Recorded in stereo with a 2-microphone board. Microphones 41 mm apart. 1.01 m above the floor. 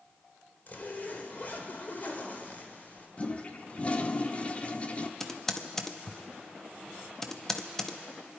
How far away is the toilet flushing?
About 0.7 m.